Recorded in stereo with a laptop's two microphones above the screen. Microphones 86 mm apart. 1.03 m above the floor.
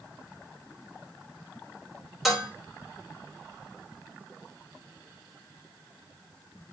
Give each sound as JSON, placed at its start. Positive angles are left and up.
{"t": 2.2, "sound": "dishes clattering", "side_deg": 0, "distance_m": 2.5}